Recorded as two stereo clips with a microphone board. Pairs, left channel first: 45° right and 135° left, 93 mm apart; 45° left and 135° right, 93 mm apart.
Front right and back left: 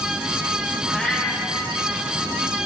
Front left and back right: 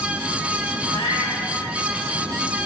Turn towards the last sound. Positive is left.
turn(degrees=40)